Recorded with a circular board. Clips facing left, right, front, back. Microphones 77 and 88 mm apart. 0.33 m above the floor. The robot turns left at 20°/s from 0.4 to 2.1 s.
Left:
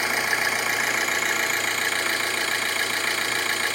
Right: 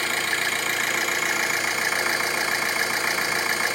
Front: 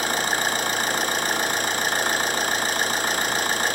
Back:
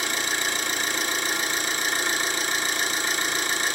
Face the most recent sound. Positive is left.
turn(degrees=-20)